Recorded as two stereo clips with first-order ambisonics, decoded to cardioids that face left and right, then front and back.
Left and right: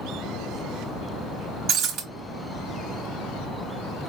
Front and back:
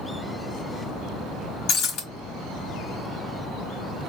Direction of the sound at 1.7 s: 40° right.